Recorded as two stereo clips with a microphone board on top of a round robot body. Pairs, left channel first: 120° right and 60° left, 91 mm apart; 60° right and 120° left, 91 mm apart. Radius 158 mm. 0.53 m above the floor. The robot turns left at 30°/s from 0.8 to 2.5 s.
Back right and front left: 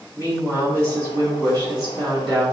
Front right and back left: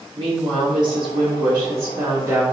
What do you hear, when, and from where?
0.2 s a woman speaking: 110° left, 1.7 m; by 2.4 s 60° left, 1.7 m